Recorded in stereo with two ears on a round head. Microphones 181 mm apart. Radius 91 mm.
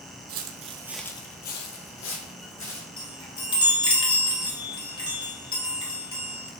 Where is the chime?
25° left (ahead or behind), 0.9 m.